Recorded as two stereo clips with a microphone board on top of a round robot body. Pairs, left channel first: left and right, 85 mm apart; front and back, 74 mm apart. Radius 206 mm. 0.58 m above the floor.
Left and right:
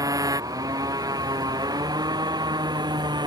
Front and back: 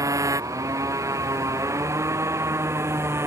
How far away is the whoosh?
I don't hear a whoosh.